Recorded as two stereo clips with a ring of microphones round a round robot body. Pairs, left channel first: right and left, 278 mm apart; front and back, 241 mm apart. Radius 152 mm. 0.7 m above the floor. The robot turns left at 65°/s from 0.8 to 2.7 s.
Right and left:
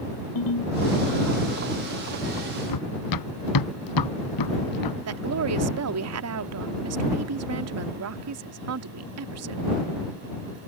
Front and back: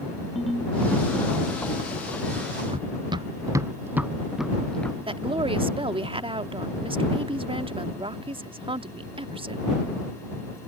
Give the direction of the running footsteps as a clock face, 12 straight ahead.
4 o'clock.